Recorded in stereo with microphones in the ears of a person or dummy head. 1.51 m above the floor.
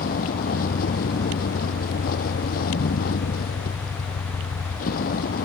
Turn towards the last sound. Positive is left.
turn(degrees=45)  # may be behind; listen again after turning